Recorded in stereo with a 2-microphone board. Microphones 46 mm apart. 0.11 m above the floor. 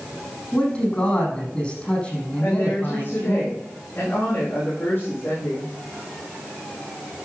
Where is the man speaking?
30° left (ahead or behind), 5.5 m.